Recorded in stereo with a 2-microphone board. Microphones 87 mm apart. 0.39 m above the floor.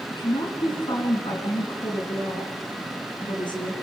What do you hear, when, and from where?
0.1 s a woman speaking: 60° left (ahead or behind), 4.5 m